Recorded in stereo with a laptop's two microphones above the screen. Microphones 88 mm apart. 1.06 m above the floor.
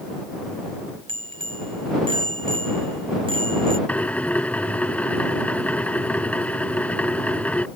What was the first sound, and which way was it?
A bicycle bell, 80° right.